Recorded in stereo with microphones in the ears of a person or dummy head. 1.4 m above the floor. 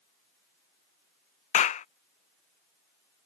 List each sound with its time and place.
1.5 s a clap: 35° left (ahead or behind)